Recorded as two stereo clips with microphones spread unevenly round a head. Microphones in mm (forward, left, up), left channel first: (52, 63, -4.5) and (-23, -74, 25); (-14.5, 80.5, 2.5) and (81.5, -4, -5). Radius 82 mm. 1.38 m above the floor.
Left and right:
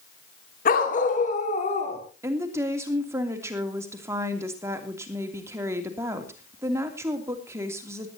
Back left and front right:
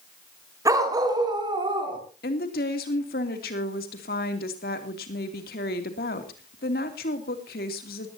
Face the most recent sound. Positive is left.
turn(degrees=165)